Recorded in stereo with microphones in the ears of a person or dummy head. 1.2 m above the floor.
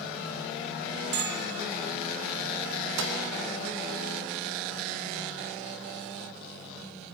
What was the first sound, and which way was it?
A bell, 60° right (ahead or behind).